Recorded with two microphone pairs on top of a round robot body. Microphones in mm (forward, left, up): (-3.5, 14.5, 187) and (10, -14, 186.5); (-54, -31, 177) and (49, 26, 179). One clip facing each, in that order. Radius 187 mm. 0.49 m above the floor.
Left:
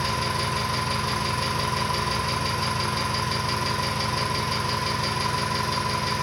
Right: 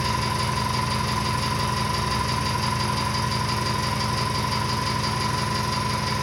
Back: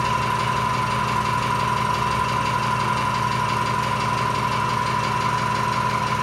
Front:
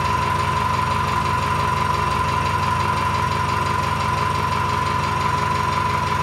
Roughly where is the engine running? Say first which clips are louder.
Right 1 dB, front 2 dB; ahead left.